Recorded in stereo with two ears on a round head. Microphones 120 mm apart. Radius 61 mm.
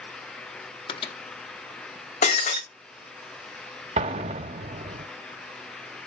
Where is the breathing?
No breathing in this recording.